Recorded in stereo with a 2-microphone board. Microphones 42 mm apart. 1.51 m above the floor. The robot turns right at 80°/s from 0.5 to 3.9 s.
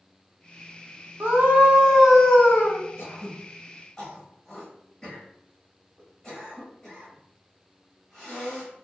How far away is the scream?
About 0.7 m.